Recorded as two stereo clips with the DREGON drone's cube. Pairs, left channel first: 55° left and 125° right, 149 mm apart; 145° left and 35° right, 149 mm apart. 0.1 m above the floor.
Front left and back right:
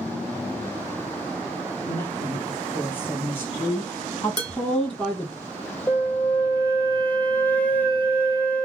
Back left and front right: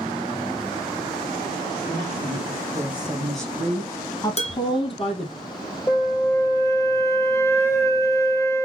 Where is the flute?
115° left, 0.7 m.